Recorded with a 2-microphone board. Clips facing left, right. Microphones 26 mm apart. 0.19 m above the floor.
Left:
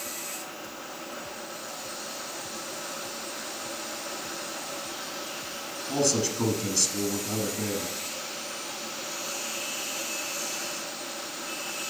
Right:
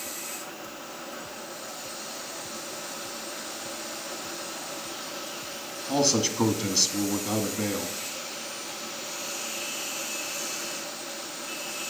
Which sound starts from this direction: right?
A man speaking, at 5.9 s.